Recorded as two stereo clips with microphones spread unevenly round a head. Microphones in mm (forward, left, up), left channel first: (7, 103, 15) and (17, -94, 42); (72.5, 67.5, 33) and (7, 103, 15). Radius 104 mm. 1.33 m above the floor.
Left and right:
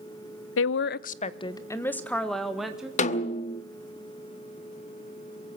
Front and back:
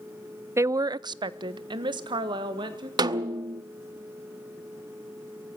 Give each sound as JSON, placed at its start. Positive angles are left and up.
{"t": 0.6, "sound": "a woman speaking", "azimuth_deg": 100, "distance_m": 0.7}
{"t": 3.0, "sound": "a snare drum", "azimuth_deg": 145, "distance_m": 0.9}